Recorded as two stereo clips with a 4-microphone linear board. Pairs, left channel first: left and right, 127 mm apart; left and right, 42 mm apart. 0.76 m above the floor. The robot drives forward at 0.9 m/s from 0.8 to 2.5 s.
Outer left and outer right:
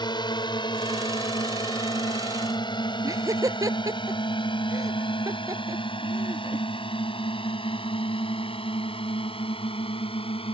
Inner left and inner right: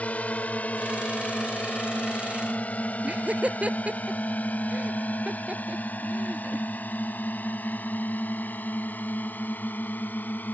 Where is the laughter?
30° right (ahead or behind).